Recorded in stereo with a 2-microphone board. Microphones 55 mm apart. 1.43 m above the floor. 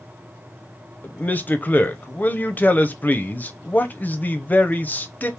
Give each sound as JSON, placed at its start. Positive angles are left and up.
{"t": 1.0, "sound": "a man speaking", "side_deg": 30, "distance_m": 0.6}